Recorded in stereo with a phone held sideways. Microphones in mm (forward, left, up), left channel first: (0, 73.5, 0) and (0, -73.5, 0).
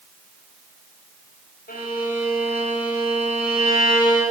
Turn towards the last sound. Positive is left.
turn(degrees=85)